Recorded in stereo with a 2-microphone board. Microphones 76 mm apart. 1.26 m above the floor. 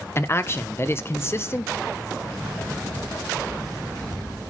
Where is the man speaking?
35° left (ahead or behind), 0.8 m.